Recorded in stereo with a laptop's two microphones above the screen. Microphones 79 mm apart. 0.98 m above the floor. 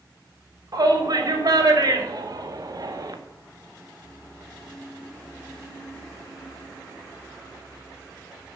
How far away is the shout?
About 3.5 m.